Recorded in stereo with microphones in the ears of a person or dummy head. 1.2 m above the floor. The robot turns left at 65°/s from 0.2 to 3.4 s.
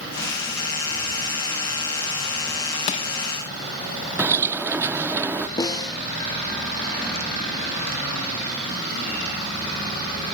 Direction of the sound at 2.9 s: 40° left (ahead or behind).